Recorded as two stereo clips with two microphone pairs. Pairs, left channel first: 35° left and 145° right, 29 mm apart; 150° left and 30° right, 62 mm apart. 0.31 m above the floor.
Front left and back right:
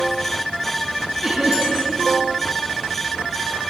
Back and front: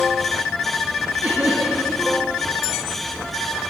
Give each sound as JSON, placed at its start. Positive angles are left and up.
{"t": 1.2, "sound": "laughter", "azimuth_deg": -80, "distance_m": 4.5}